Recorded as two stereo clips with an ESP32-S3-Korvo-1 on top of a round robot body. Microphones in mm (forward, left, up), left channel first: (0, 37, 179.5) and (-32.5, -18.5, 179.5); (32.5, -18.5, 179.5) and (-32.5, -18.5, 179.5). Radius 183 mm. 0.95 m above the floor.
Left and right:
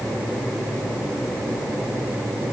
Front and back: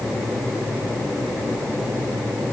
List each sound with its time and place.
Only background noise.